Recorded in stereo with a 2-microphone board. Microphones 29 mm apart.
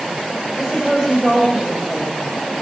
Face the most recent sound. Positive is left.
turn(degrees=0)  # may be behind; listen again after turning